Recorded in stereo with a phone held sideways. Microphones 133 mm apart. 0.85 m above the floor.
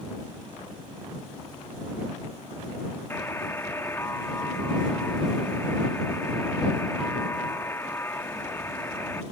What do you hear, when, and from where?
3.1 s a buzzer: 20° left (ahead or behind)